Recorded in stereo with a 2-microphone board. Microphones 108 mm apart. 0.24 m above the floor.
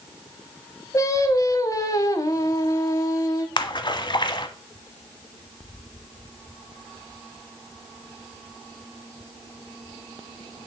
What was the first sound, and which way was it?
Singing, 30° left (ahead or behind).